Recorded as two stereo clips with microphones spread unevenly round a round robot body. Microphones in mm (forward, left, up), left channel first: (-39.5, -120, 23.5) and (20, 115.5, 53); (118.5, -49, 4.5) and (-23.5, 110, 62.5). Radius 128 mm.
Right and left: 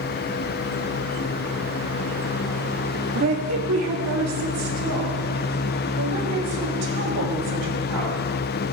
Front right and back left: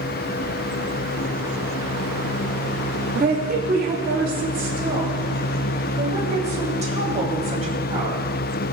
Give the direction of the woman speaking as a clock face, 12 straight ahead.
9 o'clock.